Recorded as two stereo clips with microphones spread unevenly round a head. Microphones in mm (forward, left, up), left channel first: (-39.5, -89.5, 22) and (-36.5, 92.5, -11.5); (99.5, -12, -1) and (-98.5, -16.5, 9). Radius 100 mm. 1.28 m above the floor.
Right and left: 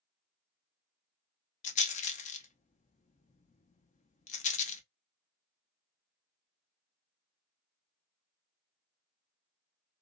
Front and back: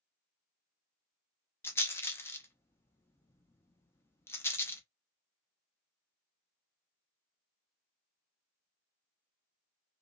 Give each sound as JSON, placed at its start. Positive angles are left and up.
{"t": 1.6, "sound": "a rattle", "azimuth_deg": -60, "distance_m": 0.5}